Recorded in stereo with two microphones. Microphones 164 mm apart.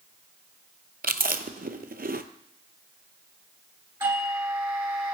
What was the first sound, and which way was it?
Chewing, 65° right (ahead or behind).